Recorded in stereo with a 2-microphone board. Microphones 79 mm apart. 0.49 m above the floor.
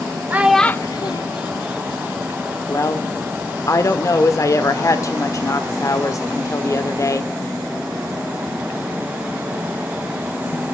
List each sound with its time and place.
0.3 s a child speaking: 25° right (ahead or behind), 0.7 m; by 2.5 s 75° left (ahead or behind), 2.5 m
2.7 s a woman speaking: 45° left (ahead or behind), 1.6 m